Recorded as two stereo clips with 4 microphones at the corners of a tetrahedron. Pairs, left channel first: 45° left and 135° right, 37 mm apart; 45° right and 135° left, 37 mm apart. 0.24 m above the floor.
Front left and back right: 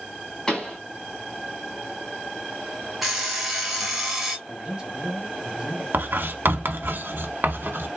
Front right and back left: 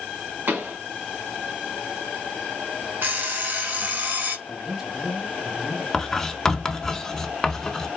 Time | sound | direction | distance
0.5 | a pop | 115° left | 2 m
3.0 | an alarm clock | 140° left | 1.5 m
4.5 | a man speaking | 165° right | 1.3 m
5.9 | writing | 125° right | 0.8 m